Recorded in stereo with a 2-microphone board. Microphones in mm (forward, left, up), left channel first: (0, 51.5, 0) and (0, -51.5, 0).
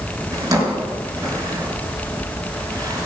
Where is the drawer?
35° right (ahead or behind), 4 m.